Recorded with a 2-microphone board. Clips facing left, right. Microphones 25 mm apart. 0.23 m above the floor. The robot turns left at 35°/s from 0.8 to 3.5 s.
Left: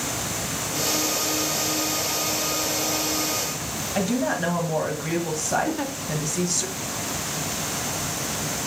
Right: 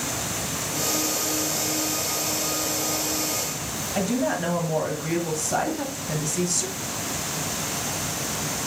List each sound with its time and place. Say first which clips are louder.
4.0 s a woman speaking: left 1 dB; 15° left (ahead or behind), 1.1 m
5.7 s a giggle: left 1 dB; 40° left (ahead or behind), 0.6 m